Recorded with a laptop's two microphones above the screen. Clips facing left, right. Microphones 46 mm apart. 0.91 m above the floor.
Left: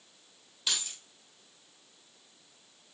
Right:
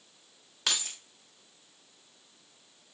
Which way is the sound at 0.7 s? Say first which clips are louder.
Right 2 dB; 80° right.